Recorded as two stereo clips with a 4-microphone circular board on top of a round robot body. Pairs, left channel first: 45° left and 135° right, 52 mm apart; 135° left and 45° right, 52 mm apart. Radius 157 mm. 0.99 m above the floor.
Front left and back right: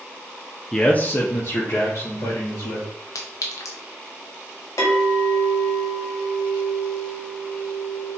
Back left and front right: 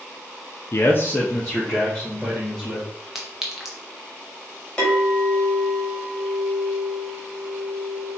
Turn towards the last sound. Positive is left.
turn(degrees=60)